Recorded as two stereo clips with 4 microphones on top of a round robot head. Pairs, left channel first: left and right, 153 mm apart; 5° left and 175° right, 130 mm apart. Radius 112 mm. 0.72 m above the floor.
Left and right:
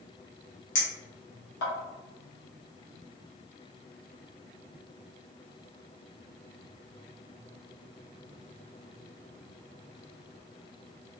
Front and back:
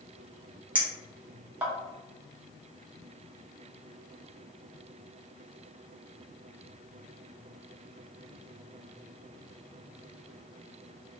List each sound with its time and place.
0.8 s a clink: 105° left, 1.0 m